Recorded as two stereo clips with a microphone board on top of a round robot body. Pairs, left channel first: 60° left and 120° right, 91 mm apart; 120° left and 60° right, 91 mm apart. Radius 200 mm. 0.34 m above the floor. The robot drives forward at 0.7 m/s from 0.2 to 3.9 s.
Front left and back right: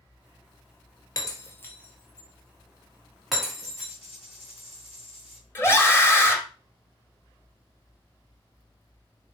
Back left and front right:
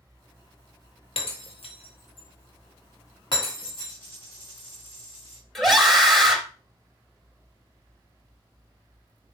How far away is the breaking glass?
About 1.2 m.